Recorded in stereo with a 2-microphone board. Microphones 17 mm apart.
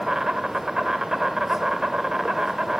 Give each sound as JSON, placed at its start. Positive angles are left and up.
{"t": 0.0, "sound": "an insect", "side_deg": -35, "distance_m": 1.2}